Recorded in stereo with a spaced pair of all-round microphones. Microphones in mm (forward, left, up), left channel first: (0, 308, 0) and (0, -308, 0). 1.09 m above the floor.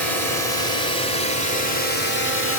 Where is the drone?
75° right (ahead or behind); by 2.6 s 65° right (ahead or behind).